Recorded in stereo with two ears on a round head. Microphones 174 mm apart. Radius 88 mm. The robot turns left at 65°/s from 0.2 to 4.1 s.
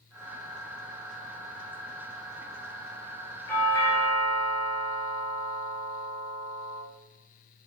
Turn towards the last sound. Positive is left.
turn(degrees=25)  # may be behind; listen again after turning